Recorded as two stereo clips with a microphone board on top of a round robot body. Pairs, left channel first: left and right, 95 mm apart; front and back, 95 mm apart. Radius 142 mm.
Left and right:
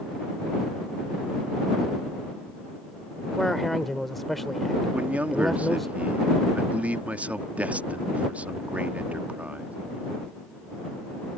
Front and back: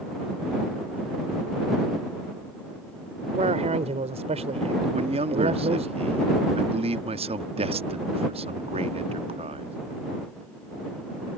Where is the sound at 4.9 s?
170° right.